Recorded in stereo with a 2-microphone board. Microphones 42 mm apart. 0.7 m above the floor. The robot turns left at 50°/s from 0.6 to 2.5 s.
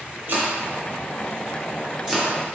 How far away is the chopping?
About 1.0 m.